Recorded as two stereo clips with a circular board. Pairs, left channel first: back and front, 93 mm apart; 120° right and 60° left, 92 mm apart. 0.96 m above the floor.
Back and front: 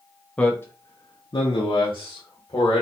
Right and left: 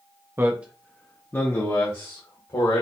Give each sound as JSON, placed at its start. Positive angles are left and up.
{"t": 0.4, "sound": "a man speaking", "azimuth_deg": 110, "distance_m": 0.6}